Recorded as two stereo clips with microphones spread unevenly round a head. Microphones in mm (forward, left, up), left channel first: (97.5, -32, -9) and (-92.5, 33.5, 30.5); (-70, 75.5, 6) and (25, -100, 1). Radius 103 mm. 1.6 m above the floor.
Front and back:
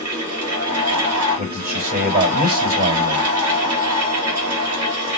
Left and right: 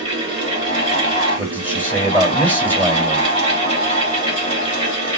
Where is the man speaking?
145° right, 3.5 m.